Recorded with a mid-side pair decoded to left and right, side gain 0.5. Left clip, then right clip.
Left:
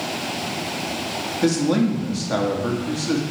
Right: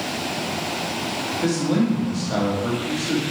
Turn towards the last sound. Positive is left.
turn(degrees=30)